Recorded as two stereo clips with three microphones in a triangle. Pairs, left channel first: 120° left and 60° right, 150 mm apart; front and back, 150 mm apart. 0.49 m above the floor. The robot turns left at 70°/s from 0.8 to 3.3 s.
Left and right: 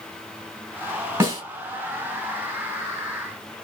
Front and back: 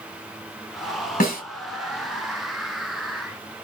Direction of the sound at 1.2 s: 15° left.